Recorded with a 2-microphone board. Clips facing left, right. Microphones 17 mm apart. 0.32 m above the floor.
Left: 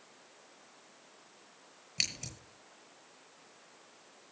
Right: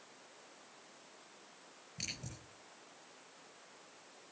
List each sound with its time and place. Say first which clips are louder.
2.0 s scissors: left 10 dB; 80° left, 8 m